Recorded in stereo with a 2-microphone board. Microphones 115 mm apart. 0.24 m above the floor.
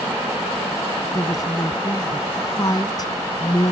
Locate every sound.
1.1 s a woman speaking: 35° left (ahead or behind)